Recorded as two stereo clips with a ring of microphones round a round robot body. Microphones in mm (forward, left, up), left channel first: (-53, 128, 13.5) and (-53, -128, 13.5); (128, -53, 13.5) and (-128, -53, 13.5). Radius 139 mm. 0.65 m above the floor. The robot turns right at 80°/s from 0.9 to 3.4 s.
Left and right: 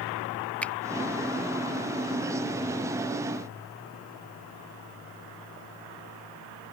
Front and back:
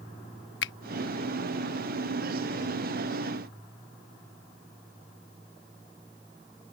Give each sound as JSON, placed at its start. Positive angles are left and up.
{"t": 0.6, "sound": "a finger snap", "azimuth_deg": 10}